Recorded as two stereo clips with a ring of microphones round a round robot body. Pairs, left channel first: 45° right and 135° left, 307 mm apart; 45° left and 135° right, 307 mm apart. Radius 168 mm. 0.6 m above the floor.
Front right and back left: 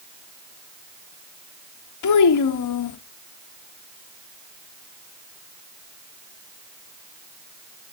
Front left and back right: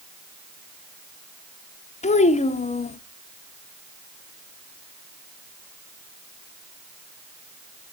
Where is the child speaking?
25° right, 1.0 m.